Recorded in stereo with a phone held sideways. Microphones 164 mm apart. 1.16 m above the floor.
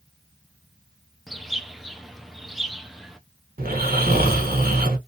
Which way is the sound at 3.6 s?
65° right (ahead or behind).